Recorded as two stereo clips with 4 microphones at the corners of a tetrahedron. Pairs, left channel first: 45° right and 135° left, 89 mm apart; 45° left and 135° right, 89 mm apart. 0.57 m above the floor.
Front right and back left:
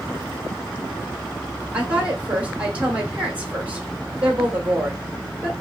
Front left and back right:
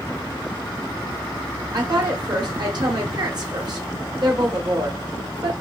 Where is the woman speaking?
155° right, 1.4 m.